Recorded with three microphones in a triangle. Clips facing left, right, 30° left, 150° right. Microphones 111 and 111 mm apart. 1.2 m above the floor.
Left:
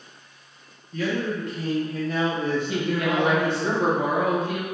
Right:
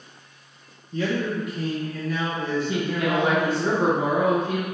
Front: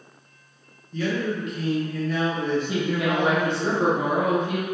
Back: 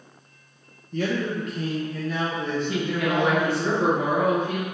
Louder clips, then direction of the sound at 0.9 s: Right 1 dB, even; 145° right.